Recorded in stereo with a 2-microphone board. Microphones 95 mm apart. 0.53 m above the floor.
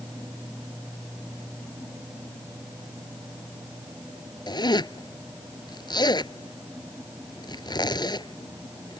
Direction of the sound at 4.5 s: 50° left (ahead or behind).